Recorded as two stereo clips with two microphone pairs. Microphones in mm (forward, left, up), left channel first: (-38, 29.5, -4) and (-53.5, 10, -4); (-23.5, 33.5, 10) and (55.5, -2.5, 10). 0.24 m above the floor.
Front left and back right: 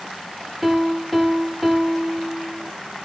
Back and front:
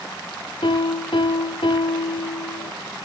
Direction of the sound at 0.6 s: 150° left.